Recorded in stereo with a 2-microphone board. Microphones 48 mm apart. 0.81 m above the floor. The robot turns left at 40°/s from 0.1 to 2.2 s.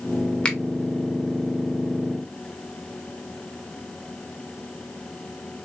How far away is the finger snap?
About 0.9 m.